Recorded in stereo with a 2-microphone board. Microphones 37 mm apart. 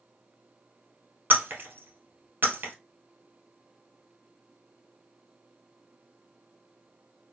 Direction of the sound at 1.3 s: 70° right (ahead or behind).